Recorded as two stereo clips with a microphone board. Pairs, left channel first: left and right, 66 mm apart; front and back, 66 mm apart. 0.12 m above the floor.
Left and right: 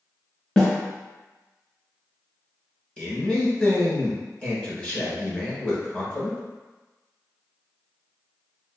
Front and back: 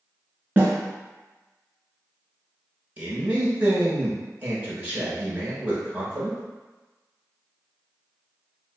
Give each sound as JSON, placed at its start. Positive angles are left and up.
{"t": 0.6, "sound": "a snare drum", "azimuth_deg": 160, "distance_m": 1.3}
{"t": 3.0, "sound": "a man speaking", "azimuth_deg": 145, "distance_m": 1.2}